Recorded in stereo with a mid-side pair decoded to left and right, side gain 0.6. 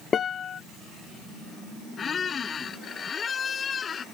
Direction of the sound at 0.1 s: 40° left.